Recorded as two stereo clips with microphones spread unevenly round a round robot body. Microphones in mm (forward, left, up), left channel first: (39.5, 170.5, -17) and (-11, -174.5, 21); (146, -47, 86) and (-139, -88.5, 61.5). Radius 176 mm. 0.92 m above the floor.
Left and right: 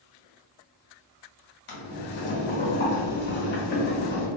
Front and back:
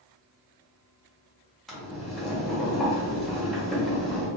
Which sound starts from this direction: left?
Boiling, at 1.7 s.